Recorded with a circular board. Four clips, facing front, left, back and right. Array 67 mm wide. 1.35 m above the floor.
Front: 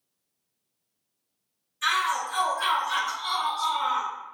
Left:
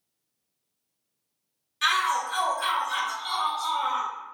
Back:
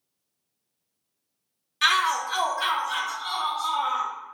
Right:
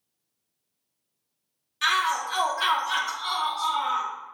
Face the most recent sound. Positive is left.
turn(degrees=-45)